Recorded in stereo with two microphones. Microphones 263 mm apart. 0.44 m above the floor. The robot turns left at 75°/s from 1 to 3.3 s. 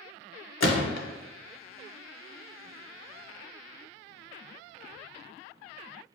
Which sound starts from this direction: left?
A gunshot, at 0.6 s.